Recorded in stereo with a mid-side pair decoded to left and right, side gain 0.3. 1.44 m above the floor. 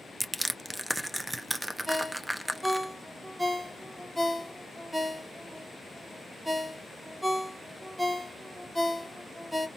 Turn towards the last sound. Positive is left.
turn(degrees=-10)